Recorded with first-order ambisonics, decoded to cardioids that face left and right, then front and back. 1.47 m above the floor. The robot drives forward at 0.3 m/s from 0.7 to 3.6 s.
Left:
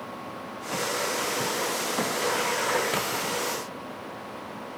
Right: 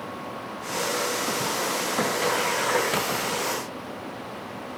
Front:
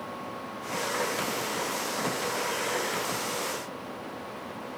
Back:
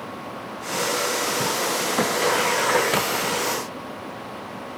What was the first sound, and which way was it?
Only background noise.